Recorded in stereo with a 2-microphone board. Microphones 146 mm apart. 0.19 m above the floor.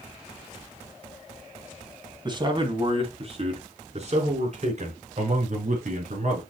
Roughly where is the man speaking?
Right.